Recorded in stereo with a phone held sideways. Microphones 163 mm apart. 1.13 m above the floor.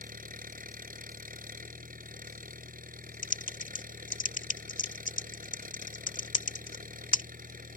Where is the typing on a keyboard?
55° left (ahead or behind).